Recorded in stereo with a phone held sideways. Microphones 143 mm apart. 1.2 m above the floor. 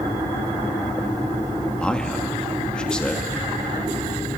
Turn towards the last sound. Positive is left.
turn(degrees=5)  # may be behind; listen again after turning